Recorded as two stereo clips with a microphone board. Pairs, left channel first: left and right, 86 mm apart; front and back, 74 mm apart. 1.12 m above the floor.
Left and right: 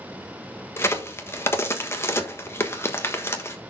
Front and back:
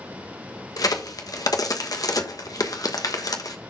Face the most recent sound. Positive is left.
turn(degrees=30)